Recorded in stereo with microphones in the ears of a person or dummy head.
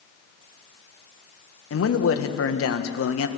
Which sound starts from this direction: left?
A man speaking, at 1.7 s.